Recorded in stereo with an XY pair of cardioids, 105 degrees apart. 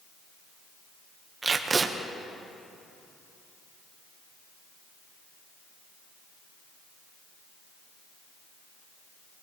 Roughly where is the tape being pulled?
Ahead right.